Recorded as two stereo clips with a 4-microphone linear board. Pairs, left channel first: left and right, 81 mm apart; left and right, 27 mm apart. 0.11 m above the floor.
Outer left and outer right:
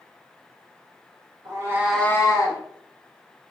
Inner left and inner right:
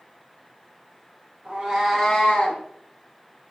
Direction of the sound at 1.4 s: 45° right (ahead or behind).